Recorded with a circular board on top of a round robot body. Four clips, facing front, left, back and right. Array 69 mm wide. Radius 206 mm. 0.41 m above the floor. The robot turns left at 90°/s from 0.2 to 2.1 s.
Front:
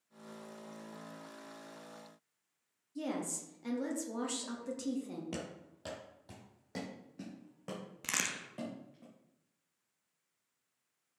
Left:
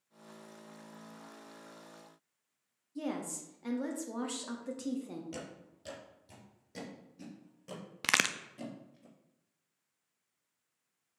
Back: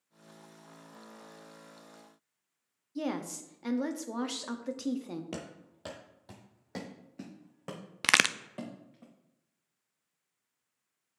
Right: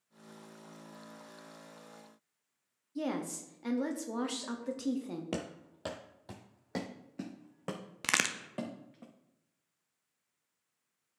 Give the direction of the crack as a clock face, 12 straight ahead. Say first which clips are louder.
Left 1 dB, back 13 dB; 6 o'clock.